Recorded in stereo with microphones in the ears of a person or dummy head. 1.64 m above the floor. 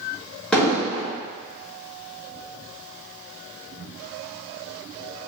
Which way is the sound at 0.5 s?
5° left (ahead or behind).